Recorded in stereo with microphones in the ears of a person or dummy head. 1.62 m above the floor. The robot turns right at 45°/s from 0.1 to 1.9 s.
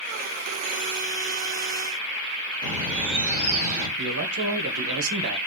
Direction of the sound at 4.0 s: 70° right (ahead or behind).